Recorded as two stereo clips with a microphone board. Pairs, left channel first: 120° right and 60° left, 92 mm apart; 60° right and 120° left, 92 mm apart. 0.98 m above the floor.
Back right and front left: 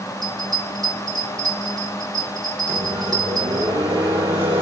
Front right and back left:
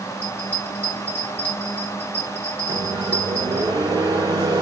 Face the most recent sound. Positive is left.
turn(degrees=75)